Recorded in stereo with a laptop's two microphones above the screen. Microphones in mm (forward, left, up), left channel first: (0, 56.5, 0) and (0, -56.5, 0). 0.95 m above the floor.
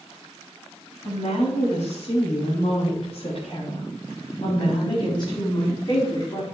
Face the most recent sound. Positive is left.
turn(degrees=30)  # may be behind; listen again after turning